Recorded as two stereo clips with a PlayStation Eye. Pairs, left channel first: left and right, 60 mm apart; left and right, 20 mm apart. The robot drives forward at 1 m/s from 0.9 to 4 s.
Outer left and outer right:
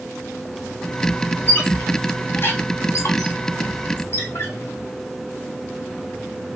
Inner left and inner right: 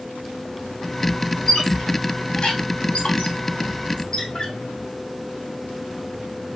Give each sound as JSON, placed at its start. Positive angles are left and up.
{"t": 1.5, "sound": "a squeak", "side_deg": 25, "distance_m": 2.0}